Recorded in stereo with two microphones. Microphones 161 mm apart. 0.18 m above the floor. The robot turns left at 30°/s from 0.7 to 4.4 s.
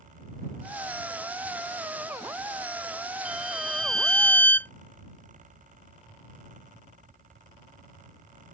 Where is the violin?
170° right; by 4.7 s 155° left.